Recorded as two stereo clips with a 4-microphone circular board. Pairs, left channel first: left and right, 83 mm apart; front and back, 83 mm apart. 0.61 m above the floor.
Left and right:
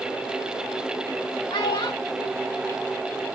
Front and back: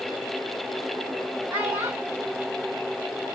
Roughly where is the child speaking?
Behind left.